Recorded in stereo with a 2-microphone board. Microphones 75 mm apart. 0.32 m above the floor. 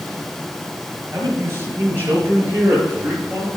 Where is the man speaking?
40° right (ahead or behind), 4.5 m; by 3.5 s 25° right (ahead or behind), 5.5 m.